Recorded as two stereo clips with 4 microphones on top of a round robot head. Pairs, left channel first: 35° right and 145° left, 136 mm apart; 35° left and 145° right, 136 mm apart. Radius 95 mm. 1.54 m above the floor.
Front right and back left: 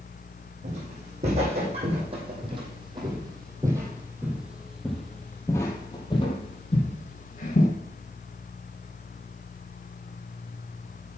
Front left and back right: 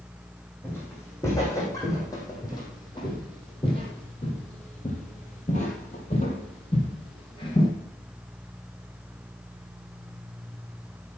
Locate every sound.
0.6 s footsteps: 105° left, 3.5 m; by 7.7 s 15° right, 2.5 m